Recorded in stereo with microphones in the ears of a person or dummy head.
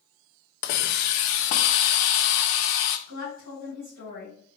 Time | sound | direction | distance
0.6 | a hiss | 50° left (ahead or behind) | 0.5 m
3.1 | a woman speaking | 75° right (ahead or behind) | 2.5 m